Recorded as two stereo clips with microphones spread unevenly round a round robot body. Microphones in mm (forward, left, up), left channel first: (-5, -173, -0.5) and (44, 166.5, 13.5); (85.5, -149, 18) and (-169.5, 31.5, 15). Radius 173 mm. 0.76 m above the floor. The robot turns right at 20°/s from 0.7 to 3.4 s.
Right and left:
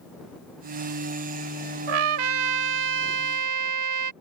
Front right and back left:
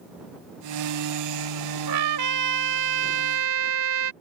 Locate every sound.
1.9 s a trumpet: 95° left; by 4.1 s 125° left